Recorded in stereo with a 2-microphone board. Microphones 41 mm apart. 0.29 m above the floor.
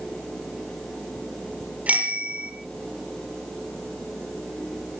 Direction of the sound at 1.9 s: 35° right (ahead or behind).